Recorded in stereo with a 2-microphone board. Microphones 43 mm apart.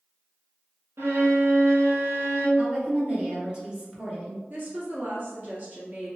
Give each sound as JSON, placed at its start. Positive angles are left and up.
{"t": 1.0, "sound": "a violin", "side_deg": -70, "distance_m": 1.2}
{"t": 2.6, "sound": "a woman speaking", "side_deg": -25, "distance_m": 1.4}
{"t": 4.5, "sound": "a woman speaking", "side_deg": -45, "distance_m": 1.7}